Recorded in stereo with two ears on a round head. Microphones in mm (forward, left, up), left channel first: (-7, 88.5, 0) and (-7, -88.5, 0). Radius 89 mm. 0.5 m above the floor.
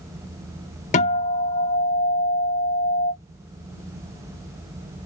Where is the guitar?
35° left (ahead or behind), 0.6 m.